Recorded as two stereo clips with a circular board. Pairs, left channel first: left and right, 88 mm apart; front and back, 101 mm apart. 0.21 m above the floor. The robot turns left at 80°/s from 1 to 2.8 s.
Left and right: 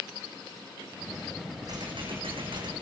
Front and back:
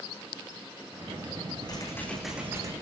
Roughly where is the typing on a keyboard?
Ahead right.